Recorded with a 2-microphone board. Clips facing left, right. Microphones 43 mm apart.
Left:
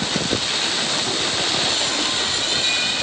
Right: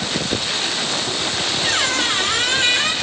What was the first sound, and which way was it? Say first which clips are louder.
A squeak: right 3 dB; 90° right.